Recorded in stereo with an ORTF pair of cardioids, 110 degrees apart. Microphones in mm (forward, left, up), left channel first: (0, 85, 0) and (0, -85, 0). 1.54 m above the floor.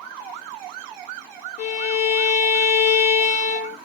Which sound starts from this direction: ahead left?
A violin, at 1.6 s.